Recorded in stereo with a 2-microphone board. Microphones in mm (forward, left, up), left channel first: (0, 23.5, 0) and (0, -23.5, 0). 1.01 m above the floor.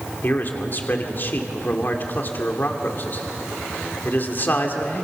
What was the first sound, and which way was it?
A man speaking, 45° left (ahead or behind).